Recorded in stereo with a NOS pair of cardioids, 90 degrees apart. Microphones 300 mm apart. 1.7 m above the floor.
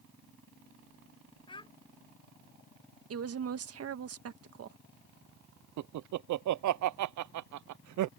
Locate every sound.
1.5 s a child speaking: 15° left
3.1 s a woman speaking: 55° right
5.8 s laughter: 70° right